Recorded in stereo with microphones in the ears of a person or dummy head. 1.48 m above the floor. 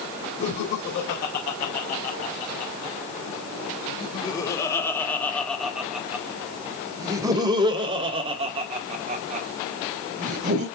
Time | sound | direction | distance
0.4 | laughter | 60° left (ahead or behind) | 3 m